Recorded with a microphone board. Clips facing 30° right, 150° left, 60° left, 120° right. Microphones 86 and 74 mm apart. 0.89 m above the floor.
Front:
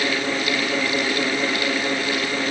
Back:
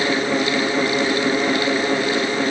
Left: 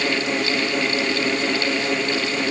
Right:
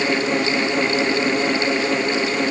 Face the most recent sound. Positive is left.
No sound to turn to.